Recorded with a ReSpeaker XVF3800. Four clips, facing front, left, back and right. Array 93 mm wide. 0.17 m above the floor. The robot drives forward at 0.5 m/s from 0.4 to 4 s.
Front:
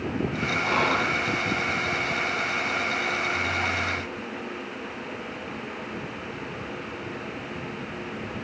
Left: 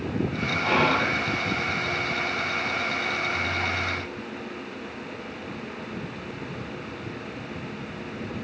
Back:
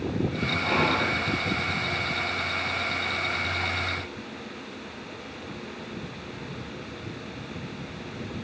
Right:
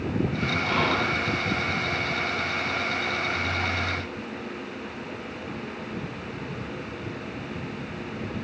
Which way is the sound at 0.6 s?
115° left.